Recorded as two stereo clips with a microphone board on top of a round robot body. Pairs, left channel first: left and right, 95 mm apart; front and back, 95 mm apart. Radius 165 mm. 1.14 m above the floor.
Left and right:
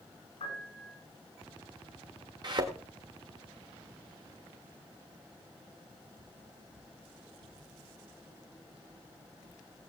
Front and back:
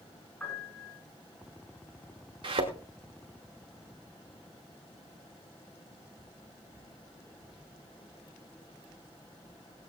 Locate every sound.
0.4 s a piano: 70° left, 9 m
2.4 s a thud: 140° right, 1.7 m